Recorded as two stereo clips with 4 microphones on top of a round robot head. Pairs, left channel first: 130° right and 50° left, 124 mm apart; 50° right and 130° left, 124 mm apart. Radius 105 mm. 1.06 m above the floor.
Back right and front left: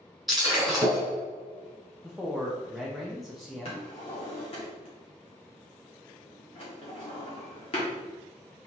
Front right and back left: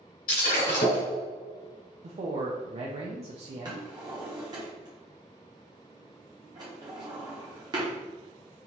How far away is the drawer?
About 1.0 m.